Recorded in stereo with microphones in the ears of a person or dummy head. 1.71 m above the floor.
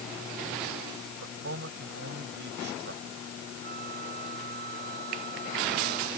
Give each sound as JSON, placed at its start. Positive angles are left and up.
{"t": 1.2, "sound": "a man speaking", "side_deg": -60}
{"t": 3.6, "sound": "a flute", "side_deg": -50}